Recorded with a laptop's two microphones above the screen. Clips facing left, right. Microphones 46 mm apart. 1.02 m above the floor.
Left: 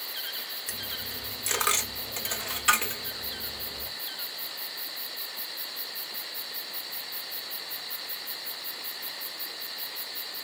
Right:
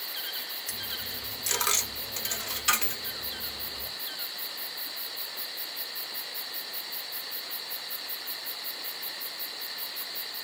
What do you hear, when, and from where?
0.7 s a dropped coin: 20° left (ahead or behind), 0.7 m